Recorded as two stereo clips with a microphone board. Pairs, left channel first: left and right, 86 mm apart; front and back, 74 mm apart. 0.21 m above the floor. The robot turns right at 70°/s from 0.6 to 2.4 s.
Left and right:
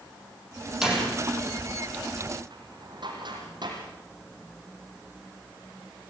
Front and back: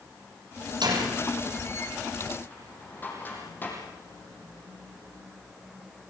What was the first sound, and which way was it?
A door slam, 175° right.